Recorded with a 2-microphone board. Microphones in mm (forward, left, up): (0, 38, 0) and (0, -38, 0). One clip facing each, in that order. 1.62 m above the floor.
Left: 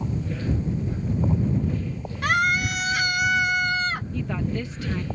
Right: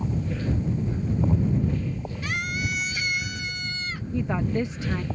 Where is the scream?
70° left (ahead or behind); by 4.0 s 65° left (ahead or behind).